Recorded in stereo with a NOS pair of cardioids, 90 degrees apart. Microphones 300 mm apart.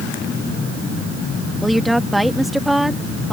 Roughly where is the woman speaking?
Ahead.